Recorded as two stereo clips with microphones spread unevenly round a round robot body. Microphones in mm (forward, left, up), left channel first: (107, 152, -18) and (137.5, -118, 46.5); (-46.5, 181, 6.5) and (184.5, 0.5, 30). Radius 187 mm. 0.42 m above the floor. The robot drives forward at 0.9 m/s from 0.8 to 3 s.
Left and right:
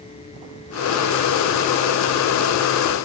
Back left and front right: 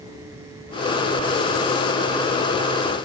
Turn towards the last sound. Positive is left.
No sound to turn to.